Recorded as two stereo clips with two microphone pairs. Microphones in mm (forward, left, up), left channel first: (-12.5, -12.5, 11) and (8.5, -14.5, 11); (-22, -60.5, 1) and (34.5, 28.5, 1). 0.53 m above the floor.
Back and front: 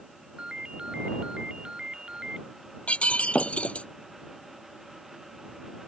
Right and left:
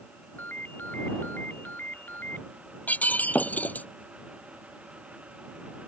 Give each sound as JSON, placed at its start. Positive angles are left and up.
{"t": 0.4, "sound": "a ringtone", "azimuth_deg": -50}
{"t": 2.9, "sound": "breaking glass", "azimuth_deg": 165}